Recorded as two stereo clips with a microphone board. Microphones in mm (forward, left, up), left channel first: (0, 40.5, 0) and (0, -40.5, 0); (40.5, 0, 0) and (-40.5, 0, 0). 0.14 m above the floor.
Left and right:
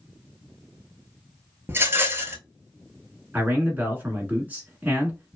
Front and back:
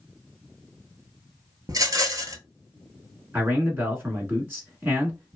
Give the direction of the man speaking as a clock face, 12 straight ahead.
5 o'clock.